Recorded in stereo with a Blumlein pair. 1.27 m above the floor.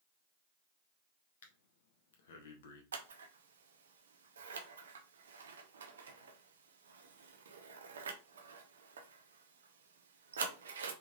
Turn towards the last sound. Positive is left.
turn(degrees=-65)